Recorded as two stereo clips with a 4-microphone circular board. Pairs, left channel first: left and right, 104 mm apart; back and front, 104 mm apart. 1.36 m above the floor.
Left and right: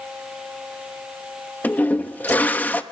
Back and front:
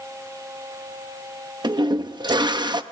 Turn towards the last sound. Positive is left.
turn(degrees=20)